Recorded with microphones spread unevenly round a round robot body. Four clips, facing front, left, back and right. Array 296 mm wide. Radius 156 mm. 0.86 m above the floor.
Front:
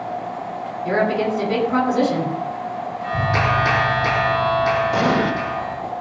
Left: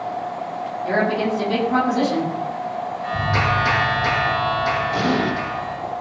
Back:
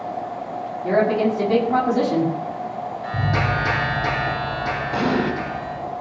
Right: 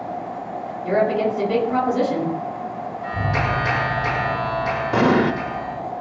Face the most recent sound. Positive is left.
turn(degrees=-80)